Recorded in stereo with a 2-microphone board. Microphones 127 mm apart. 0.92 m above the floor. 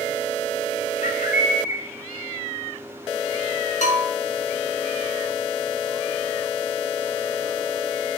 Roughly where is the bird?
Left.